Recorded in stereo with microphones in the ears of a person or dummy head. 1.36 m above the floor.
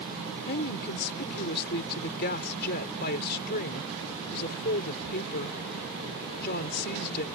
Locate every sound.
0.5 s a woman speaking: 55° left (ahead or behind)